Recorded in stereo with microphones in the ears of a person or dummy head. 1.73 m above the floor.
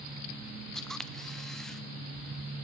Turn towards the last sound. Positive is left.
turn(degrees=0)  # may be behind; listen again after turning